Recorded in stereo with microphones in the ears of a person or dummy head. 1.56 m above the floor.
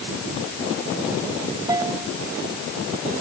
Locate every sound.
1.7 s a bell: 20° right (ahead or behind)